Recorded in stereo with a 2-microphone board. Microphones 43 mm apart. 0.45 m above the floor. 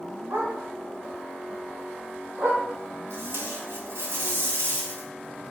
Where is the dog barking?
80° right, 1.5 m; by 2.6 s 45° right (ahead or behind), 1.9 m.